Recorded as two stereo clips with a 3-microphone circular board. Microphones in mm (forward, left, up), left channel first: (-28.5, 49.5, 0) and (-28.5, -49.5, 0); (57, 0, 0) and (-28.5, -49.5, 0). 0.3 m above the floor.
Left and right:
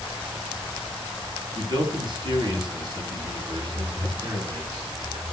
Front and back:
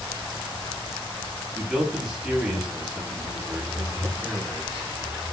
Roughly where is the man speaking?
Right.